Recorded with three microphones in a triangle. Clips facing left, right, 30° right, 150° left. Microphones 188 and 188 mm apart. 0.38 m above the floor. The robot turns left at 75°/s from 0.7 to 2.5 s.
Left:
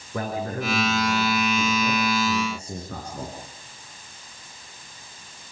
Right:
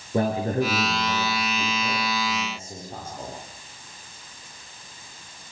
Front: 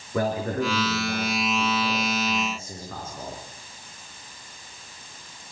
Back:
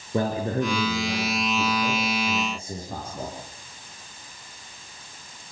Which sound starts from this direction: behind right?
A man speaking, at 0.1 s.